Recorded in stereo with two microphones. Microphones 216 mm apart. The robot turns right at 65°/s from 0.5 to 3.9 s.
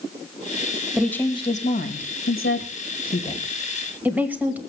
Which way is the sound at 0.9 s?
5° right (ahead or behind).